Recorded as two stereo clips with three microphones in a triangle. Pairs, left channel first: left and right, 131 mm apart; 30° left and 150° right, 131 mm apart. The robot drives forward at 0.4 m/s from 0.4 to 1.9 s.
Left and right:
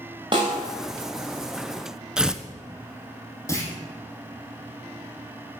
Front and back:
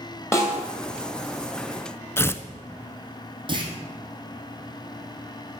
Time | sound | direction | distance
0.3 | a snare drum | 40° right | 2.5 m
2.2 | tearing paper | 15° right | 0.6 m
3.5 | a clunk | 160° left | 2.0 m